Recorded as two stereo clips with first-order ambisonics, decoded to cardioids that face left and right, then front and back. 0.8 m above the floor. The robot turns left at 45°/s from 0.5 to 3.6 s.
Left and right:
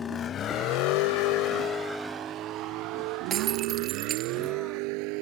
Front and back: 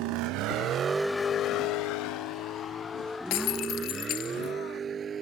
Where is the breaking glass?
25° right; by 4.5 s 40° right.